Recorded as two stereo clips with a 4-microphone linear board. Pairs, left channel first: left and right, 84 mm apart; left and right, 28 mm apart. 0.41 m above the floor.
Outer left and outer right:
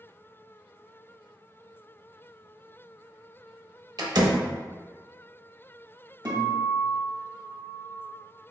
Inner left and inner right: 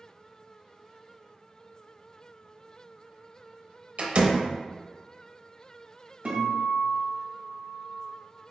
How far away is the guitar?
About 1.9 m.